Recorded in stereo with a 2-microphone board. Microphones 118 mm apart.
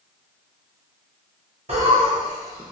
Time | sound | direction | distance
1.7 | laughter | 60° right (ahead or behind) | 0.8 m